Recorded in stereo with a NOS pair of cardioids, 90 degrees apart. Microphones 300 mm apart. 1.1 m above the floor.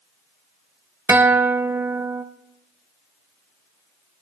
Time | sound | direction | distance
1.1 | a guitar | 5° right | 0.5 m